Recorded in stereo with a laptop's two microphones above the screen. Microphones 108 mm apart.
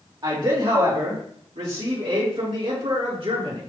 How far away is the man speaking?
About 2.5 m.